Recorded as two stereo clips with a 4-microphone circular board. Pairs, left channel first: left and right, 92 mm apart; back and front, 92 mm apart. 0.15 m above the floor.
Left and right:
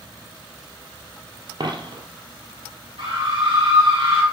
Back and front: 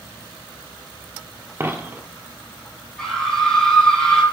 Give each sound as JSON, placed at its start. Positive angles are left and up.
{"t": 1.6, "sound": "a dropped coin", "azimuth_deg": -60, "distance_m": 1.1}
{"t": 3.0, "sound": "a scream", "azimuth_deg": -100, "distance_m": 4.0}